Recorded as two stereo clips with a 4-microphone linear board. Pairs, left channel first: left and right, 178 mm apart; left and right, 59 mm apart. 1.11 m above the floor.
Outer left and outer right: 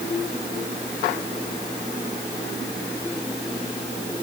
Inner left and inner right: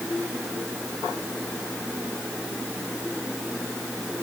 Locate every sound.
Only background noise.